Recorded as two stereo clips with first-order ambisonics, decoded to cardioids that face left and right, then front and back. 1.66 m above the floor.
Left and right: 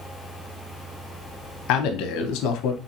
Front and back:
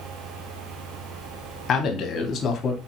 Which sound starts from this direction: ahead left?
A man speaking, at 1.7 s.